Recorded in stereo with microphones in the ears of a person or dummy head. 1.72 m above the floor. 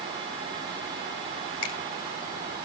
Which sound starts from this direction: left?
A finger snap, at 1.6 s.